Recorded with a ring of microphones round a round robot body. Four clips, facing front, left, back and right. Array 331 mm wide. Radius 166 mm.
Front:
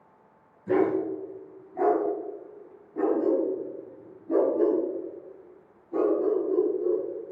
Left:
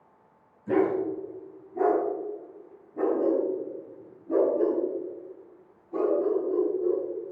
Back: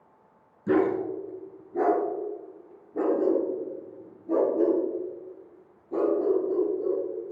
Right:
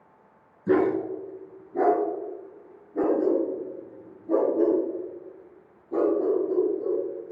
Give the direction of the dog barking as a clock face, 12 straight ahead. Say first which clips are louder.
Right 2 dB, even; 4 o'clock.